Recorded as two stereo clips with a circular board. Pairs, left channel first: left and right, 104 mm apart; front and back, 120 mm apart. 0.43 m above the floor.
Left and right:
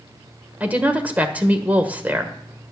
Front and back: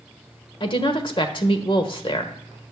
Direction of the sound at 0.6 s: 20° right.